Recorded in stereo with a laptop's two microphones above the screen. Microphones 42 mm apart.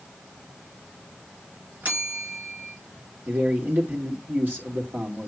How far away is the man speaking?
About 2.5 m.